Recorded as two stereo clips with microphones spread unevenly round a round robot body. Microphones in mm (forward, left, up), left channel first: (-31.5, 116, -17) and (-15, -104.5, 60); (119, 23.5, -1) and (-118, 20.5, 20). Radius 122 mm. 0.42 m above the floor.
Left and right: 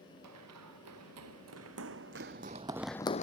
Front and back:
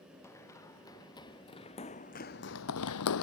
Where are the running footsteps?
80° right; by 3.2 s 25° left.